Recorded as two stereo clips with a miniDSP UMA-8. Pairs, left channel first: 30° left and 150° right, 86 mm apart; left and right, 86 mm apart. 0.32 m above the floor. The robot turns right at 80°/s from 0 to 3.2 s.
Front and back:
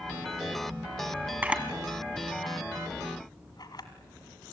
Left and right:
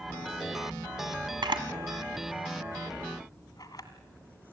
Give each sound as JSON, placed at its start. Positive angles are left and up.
{"t": 1.4, "sound": "a camera shutter", "azimuth_deg": -85, "distance_m": 1.8}